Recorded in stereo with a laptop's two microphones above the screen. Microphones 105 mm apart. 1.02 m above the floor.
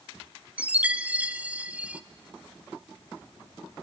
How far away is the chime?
About 0.5 m.